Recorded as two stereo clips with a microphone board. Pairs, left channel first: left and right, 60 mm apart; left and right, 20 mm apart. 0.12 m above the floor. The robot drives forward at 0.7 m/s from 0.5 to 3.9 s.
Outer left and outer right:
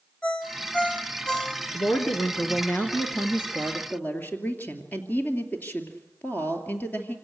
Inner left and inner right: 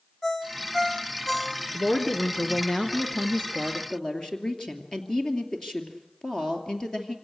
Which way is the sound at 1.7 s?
40° left (ahead or behind).